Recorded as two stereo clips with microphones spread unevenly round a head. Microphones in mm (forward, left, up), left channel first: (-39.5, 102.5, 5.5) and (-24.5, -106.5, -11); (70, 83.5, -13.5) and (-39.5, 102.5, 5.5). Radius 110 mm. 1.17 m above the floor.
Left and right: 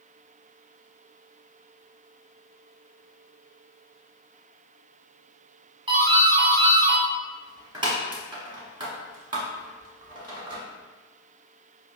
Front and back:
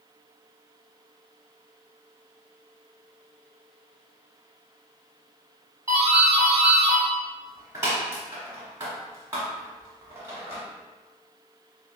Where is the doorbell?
120° right, 0.9 m.